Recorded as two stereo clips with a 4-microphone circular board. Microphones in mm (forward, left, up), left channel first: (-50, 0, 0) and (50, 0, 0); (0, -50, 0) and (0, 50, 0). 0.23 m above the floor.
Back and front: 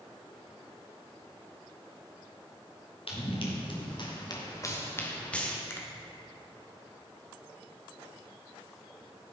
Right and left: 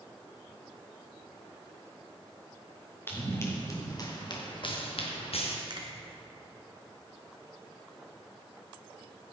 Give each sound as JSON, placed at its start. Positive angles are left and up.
{"t": 3.1, "sound": "running footsteps", "azimuth_deg": -155, "distance_m": 3.5}
{"t": 5.7, "sound": "a finger snap", "azimuth_deg": 120, "distance_m": 1.7}